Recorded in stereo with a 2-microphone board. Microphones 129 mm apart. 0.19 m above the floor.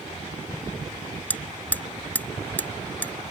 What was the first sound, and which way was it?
Hammering, 10° left (ahead or behind).